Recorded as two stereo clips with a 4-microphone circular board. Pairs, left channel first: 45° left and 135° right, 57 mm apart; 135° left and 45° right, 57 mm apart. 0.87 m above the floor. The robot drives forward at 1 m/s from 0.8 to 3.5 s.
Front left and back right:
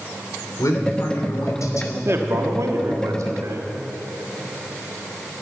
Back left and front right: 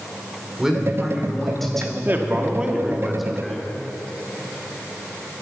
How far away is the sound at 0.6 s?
About 3 m.